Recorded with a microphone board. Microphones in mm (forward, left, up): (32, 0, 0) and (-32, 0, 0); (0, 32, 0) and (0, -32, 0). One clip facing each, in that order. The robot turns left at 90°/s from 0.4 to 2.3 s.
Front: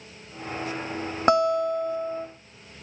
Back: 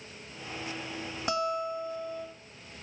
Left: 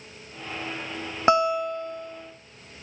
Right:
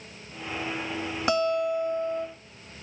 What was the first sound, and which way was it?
A guitar, 30° left.